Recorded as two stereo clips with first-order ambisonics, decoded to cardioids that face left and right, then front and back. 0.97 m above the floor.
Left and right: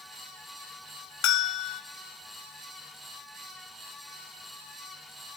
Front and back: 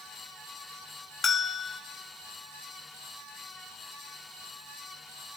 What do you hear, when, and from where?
1.2 s a bell: 65° left, 1.4 m